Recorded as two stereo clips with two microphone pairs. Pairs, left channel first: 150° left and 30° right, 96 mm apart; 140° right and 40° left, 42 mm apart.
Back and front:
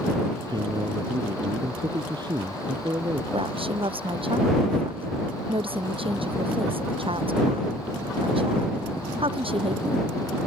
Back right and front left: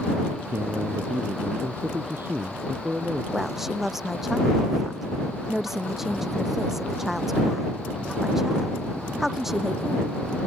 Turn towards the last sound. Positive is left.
turn(degrees=-40)